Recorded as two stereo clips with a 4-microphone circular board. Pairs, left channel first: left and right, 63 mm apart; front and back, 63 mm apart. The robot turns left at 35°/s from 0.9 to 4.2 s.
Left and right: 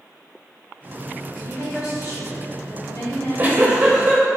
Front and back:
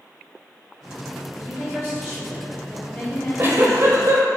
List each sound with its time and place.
1.3 s a woman speaking: 125° left, 1.8 m; by 4.1 s 30° left, 1.8 m
3.1 s a giggle: 130° right, 0.7 m; by 4.2 s 165° right, 0.7 m